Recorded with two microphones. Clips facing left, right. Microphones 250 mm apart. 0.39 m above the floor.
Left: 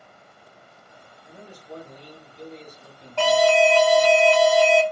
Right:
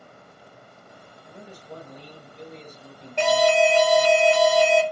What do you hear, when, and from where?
1.2 s a man speaking: 25° right (ahead or behind), 1.4 m
3.2 s an alarm: 20° right (ahead or behind), 0.6 m